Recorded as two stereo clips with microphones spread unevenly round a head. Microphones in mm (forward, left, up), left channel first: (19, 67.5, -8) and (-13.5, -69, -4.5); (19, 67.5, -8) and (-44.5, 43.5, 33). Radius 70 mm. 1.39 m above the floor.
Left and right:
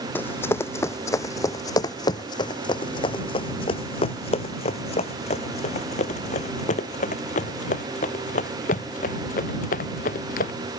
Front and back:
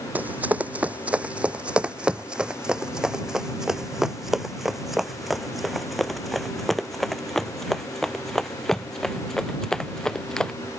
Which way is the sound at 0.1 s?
155° left.